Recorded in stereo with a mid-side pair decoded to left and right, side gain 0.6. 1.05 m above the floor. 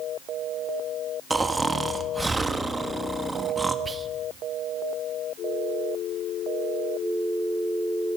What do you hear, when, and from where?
1.3 s snoring: 10° right, 1.2 m
3.9 s whispering: 20° right, 1.2 m